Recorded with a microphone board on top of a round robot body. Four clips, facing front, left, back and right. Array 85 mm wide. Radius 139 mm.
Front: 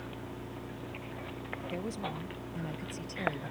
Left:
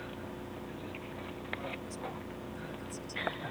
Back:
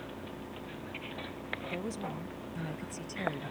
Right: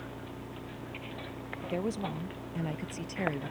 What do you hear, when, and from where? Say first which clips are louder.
1.6 s a woman speaking: right 7 dB, front 1 dB; 95° right